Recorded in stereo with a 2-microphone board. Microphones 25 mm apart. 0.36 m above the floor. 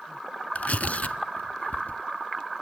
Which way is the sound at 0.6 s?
70° left (ahead or behind).